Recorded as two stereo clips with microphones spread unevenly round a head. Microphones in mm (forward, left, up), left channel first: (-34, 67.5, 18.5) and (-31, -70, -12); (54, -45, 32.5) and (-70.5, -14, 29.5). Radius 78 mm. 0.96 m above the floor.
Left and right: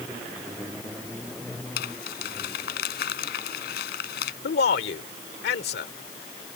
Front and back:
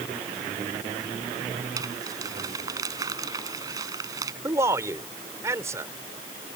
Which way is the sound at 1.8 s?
95° left.